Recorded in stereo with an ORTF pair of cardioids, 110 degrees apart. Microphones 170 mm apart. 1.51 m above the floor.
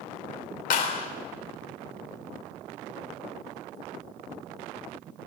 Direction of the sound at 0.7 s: 60° left.